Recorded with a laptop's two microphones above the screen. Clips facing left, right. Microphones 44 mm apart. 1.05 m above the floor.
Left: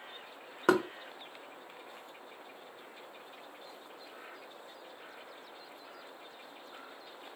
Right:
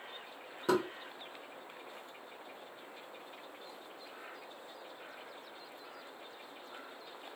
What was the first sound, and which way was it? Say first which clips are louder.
Knocking: left 4 dB; 75° left (ahead or behind).